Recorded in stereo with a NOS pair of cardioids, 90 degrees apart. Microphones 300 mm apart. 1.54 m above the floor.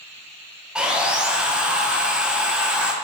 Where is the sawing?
5° right, 1.6 m.